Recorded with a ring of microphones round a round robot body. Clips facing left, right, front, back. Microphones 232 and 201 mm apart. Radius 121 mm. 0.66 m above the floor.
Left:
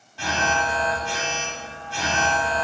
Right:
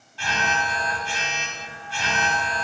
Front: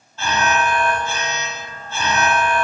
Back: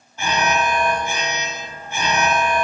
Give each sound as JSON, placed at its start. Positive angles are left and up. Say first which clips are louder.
{"t": 0.2, "sound": "an alarm", "louder": "left 3 dB, even", "azimuth_deg": 110, "distance_m": 2.0}